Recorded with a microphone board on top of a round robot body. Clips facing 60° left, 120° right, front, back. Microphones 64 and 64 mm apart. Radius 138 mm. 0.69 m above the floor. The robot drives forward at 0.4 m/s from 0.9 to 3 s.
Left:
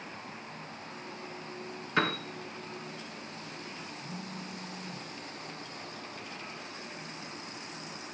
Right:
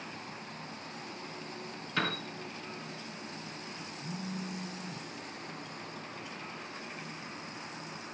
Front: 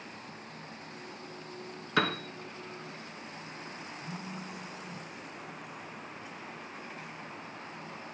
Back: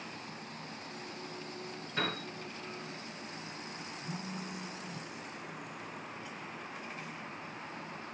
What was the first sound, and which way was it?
A piano, 5° right.